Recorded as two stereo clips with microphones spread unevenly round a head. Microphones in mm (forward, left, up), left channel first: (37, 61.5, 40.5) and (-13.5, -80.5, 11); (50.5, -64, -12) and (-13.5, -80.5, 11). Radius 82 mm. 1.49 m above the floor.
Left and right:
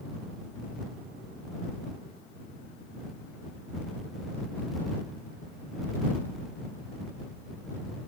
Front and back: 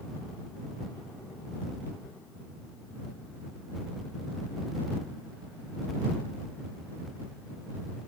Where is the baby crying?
No baby crying in this recording.